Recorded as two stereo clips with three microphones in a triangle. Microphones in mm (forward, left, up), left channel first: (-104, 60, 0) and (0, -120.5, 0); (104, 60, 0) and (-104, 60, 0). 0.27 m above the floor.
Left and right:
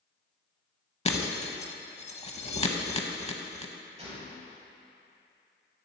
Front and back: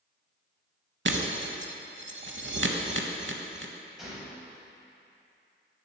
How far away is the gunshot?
About 1.9 m.